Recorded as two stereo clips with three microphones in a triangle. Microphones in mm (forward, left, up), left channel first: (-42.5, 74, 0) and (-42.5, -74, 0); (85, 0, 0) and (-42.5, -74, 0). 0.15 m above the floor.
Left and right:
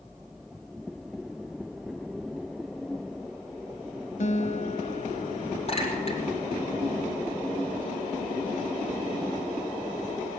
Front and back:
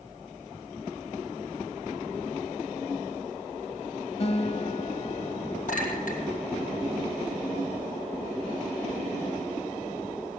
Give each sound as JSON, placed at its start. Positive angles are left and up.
{"t": 4.2, "sound": "a guitar", "azimuth_deg": 65, "distance_m": 0.8}
{"t": 5.7, "sound": "a clink", "azimuth_deg": 50, "distance_m": 2.5}